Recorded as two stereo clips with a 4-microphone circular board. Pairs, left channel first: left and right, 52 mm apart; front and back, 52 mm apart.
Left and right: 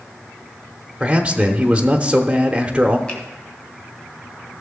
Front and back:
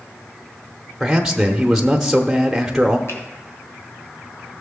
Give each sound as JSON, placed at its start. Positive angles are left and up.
{"t": 1.0, "sound": "a man speaking", "azimuth_deg": -110, "distance_m": 0.9}
{"t": 3.1, "sound": "a finger snap", "azimuth_deg": 20, "distance_m": 2.5}